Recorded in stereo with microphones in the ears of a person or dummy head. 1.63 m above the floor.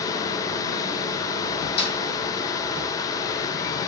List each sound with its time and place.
0.0 s a fan: 20° left (ahead or behind), 0.9 m
1.8 s a snare drum: 35° left (ahead or behind), 3.5 m